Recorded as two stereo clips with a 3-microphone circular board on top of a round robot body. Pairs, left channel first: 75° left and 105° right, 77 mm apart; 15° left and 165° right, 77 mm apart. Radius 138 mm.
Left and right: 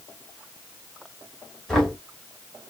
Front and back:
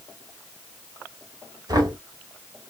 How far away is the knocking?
About 2.0 m.